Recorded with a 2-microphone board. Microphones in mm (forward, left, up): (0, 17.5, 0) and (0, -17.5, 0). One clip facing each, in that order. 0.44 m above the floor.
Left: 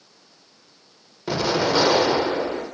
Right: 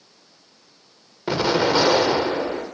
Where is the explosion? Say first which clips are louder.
Right 2 dB; 25° right (ahead or behind), 1.3 m.